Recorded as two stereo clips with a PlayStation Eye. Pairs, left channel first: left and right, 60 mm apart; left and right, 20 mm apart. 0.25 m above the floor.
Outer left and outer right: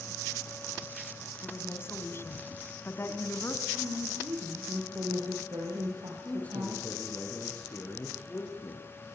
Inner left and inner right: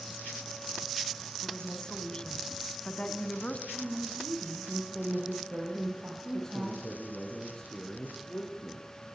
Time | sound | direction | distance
1.4 | a woman speaking | 40° left (ahead or behind) | 2.5 m
3.7 | a woman speaking | 85° right | 9.5 m
6.2 | a man speaking | 25° left (ahead or behind) | 6 m